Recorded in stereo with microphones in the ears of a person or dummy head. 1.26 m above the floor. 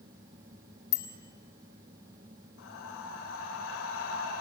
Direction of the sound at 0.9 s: 20° left (ahead or behind).